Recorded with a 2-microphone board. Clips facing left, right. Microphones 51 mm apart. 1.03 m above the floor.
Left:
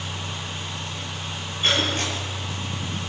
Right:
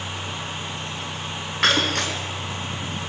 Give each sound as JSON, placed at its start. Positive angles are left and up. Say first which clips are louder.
{"t": 1.6, "sound": "breaking glass", "louder": "right 3 dB", "side_deg": -85, "distance_m": 6.0}